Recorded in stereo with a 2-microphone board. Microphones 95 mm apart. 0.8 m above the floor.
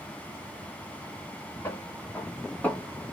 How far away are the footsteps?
About 2.5 m.